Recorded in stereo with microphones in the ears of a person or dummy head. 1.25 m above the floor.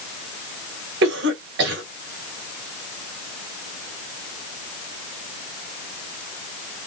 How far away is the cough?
About 2.5 m.